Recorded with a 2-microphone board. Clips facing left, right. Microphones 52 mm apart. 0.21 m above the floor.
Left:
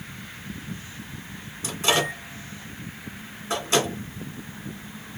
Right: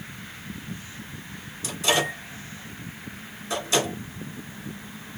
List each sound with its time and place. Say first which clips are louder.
1.6 s a microwave: left 1 dB; 30° left (ahead or behind), 1.9 m